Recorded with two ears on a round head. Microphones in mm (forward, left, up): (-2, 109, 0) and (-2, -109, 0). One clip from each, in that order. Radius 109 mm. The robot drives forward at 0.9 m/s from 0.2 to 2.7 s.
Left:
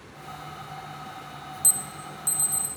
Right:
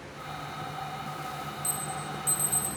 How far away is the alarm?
About 0.5 m.